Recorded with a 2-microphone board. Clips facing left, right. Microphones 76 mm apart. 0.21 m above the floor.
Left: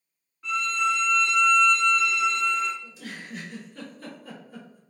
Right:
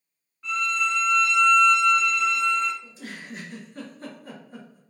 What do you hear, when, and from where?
0.4 s a violin: centre (ahead or behind), 0.9 m
2.8 s a giggle: 35° right (ahead or behind), 1.9 m